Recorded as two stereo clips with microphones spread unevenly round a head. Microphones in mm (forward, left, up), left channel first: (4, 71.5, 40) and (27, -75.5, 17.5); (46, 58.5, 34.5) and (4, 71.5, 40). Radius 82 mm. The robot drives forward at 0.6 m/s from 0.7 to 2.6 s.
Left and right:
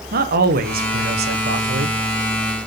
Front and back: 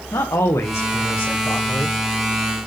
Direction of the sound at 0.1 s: 55° right.